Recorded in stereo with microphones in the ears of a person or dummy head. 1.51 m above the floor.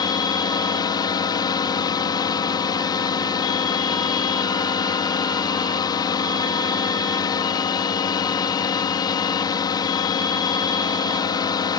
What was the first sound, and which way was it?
A drone, 15° left (ahead or behind).